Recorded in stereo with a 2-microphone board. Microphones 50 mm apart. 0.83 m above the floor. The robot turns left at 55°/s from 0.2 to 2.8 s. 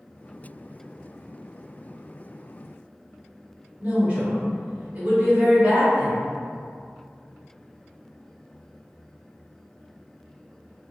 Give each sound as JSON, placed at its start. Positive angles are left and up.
{"t": 3.8, "sound": "a woman speaking", "side_deg": -25, "distance_m": 1.4}